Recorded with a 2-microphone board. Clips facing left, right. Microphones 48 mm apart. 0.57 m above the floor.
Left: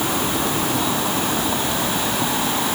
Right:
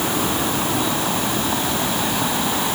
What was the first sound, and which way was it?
Only background noise.